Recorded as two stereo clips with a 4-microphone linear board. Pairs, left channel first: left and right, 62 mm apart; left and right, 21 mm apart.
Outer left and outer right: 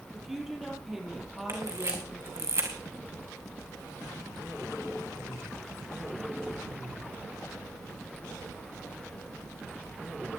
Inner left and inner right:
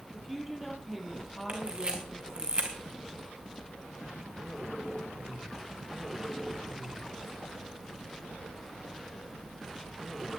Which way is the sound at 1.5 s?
50° right (ahead or behind).